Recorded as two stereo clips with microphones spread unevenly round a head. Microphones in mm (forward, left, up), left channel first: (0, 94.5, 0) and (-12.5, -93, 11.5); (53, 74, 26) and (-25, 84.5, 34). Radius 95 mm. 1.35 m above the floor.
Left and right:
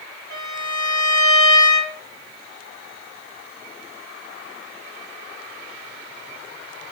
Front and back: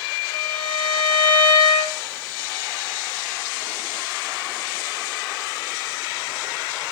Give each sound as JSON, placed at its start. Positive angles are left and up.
{"t": 0.3, "sound": "a violin", "azimuth_deg": 10, "distance_m": 7.0}